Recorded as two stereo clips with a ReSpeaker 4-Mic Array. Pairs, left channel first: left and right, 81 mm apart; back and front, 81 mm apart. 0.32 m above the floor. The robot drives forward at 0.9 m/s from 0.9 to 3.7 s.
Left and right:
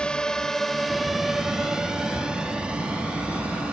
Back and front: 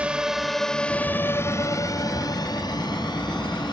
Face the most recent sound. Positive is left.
turn(degrees=-165)